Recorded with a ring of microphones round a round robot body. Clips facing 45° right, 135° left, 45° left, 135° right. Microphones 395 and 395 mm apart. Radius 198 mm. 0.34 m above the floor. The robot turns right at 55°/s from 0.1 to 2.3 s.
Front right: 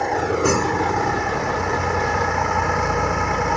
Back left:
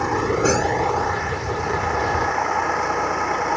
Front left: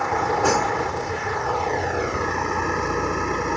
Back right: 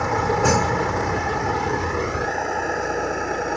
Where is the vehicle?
150° right; by 3.6 s 35° right.